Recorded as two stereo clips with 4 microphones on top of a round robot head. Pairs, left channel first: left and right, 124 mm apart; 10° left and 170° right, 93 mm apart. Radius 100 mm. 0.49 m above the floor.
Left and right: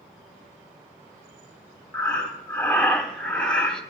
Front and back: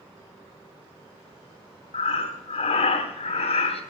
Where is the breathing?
5° left, 1.1 m.